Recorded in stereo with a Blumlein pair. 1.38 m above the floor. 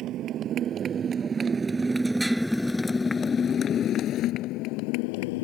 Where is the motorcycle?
35° right; by 5.5 s 50° left.